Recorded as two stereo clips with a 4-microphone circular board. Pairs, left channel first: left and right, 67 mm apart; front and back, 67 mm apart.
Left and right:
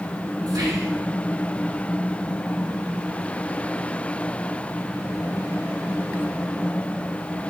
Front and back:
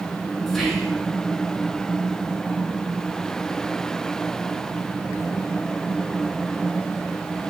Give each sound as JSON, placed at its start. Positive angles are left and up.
{"t": 0.5, "sound": "whispering", "azimuth_deg": -85, "distance_m": 3.5}